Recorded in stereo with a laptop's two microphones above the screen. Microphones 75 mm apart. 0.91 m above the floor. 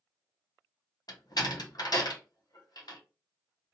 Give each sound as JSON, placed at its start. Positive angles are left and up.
{"t": 1.1, "sound": "a door slam", "side_deg": 60, "distance_m": 0.8}